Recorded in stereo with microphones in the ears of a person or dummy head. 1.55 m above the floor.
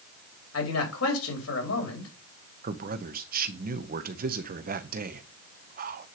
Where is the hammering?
No hammering in this recording.